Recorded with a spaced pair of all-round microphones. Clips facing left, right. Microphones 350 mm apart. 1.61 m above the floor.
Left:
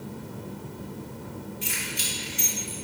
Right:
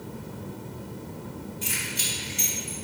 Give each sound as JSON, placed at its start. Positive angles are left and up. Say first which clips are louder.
{"t": 1.6, "sound": "keys jangling", "louder": "even", "side_deg": 70, "distance_m": 2.5}